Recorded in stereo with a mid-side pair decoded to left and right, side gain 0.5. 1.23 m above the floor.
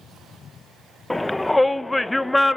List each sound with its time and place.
1.1 s a shout: 10° left, 0.7 m